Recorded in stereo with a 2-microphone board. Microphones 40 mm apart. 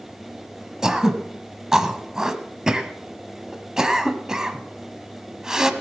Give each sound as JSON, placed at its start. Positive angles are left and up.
{"t": 0.8, "sound": "throat clearing", "side_deg": -15, "distance_m": 1.1}